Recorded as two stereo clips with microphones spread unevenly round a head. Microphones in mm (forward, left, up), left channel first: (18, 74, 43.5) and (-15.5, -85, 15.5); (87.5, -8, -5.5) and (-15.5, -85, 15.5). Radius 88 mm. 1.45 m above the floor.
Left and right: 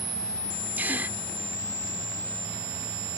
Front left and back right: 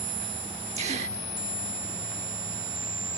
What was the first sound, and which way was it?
A gasp, 175° left.